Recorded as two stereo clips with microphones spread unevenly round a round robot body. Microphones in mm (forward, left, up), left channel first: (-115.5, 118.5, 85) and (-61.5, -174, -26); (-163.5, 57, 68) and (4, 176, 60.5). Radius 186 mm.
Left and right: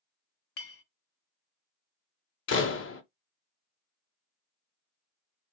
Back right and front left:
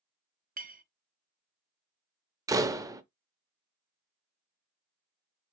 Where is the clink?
70° left, 0.8 m.